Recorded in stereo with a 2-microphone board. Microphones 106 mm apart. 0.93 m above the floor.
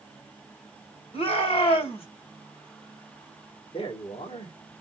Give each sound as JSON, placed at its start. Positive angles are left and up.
{"t": 1.1, "sound": "a shout", "side_deg": 65, "distance_m": 3.5}
{"t": 3.7, "sound": "a man speaking", "side_deg": 60, "distance_m": 1.8}